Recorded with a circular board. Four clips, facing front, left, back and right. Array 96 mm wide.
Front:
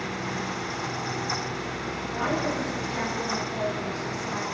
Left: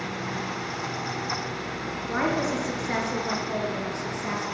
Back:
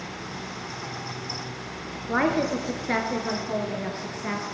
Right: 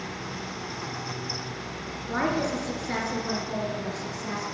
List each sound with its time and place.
2.1 s a woman speaking: 175° left, 5 m; by 4.5 s 160° left, 6.5 m